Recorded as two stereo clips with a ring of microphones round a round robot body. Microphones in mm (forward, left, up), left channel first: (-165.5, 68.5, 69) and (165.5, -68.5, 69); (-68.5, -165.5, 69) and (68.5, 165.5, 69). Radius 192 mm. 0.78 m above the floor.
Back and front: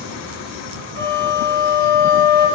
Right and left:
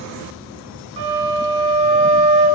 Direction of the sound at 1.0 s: 90° left.